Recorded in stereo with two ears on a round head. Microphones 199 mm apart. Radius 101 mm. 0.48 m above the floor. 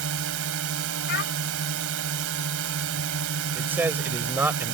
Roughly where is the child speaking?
Left.